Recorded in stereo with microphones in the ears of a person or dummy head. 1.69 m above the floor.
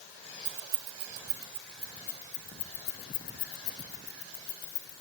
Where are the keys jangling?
40° right (ahead or behind), 1.6 m; by 5.0 s 70° left (ahead or behind), 2.5 m.